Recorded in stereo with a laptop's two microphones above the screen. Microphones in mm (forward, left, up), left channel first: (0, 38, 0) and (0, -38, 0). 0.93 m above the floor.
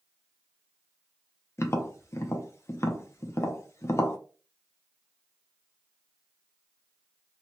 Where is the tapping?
35° left (ahead or behind), 0.5 m.